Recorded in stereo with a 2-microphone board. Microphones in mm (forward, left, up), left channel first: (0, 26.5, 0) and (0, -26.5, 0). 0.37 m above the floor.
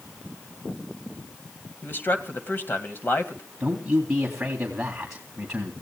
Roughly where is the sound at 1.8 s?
Left.